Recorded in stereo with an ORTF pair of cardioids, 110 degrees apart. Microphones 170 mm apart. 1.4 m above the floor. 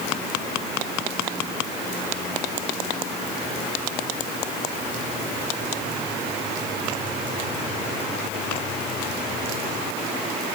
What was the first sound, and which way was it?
Only background noise.